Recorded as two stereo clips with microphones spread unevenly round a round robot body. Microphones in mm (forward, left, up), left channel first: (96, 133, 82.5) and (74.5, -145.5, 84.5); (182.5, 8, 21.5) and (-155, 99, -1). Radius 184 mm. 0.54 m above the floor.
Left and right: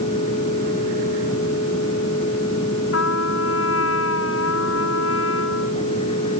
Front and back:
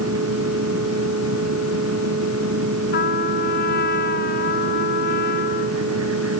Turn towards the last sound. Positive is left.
turn(degrees=45)